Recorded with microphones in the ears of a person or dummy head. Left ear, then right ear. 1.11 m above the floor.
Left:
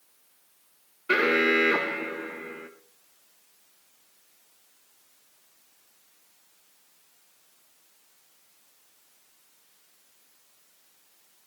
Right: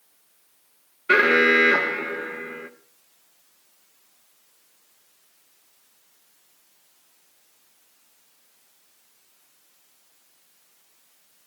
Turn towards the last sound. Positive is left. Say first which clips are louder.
# right 6 dB
turn(degrees=-5)  # may be behind; listen again after turning